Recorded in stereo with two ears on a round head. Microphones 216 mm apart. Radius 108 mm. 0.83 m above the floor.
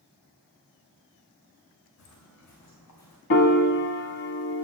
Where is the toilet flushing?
No toilet flushing in this recording.